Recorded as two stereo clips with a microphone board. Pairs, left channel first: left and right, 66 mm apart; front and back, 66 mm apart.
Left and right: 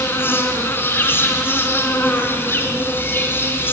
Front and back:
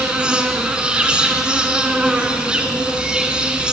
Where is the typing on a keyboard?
No typing on a keyboard in this recording.